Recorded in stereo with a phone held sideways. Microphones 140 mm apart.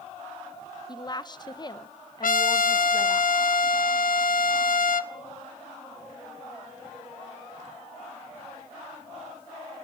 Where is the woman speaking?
30° left (ahead or behind), 0.7 m.